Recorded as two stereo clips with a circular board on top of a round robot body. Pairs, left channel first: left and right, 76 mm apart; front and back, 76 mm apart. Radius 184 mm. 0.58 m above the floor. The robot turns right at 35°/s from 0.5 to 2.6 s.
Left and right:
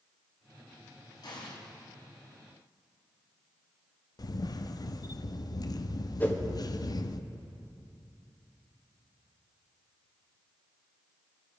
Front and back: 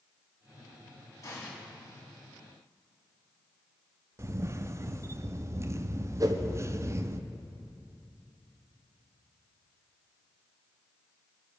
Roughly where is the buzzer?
No buzzer in this recording.